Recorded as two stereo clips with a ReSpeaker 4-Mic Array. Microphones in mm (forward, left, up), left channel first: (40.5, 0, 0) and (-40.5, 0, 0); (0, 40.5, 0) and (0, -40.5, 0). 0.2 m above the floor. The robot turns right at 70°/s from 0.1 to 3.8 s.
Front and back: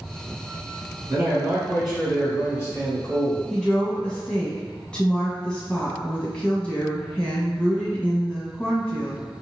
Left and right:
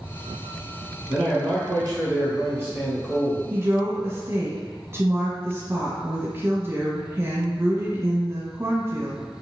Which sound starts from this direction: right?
A woman speaking, at 3.5 s.